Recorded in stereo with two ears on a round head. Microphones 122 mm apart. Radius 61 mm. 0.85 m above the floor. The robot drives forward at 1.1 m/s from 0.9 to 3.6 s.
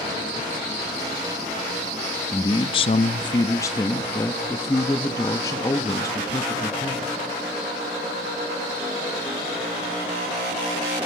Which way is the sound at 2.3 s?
25° left (ahead or behind).